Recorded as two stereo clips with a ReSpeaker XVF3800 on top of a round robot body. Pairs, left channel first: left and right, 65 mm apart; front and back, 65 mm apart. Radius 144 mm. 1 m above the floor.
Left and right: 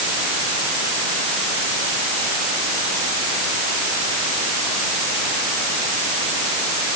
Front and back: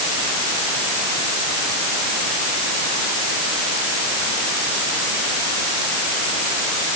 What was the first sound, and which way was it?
Only background noise.